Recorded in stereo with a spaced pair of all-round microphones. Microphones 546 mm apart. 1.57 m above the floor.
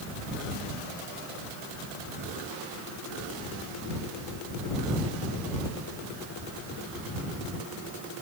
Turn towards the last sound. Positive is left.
No sound to turn to.